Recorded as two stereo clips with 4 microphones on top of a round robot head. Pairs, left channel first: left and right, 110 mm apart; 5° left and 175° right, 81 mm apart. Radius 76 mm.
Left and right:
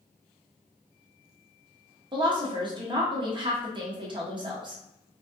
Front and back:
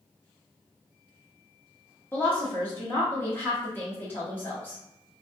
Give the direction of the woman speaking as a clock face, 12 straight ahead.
2 o'clock.